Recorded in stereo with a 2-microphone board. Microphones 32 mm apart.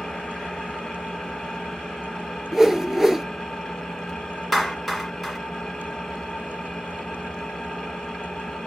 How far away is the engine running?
About 1.2 m.